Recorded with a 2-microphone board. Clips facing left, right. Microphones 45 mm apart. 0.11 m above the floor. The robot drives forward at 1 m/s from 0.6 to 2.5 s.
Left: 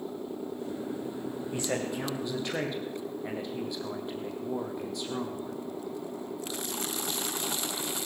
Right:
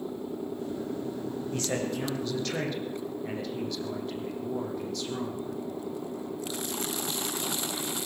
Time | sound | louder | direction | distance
1.5 | a man speaking | even | 15° left (ahead or behind) | 5.5 m